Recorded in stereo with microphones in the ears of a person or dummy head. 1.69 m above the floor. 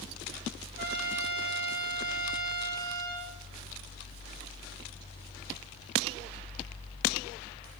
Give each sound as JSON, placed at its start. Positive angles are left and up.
{"t": 0.8, "sound": "a trumpet", "side_deg": -20, "distance_m": 0.8}